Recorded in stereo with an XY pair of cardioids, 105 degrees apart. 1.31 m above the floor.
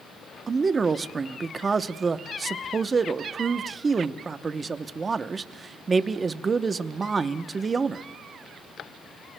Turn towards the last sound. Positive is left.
turn(degrees=-30)